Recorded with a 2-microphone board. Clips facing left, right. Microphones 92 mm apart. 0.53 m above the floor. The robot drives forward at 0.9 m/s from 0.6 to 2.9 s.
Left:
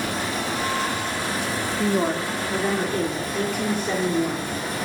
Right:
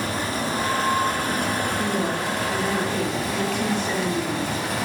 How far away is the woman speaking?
About 0.7 m.